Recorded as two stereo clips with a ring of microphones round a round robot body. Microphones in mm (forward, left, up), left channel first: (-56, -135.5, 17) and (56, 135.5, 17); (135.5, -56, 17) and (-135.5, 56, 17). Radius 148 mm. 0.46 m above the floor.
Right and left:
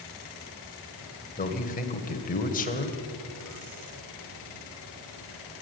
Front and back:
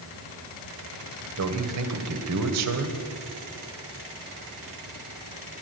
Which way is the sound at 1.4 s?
175° right.